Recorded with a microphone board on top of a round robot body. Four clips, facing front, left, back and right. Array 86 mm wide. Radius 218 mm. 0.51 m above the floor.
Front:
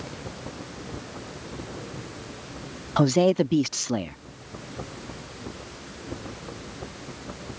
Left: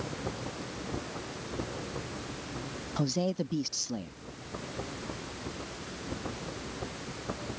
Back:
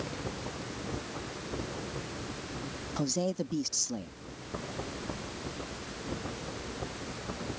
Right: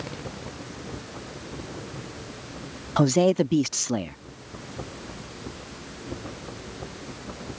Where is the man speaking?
40° right.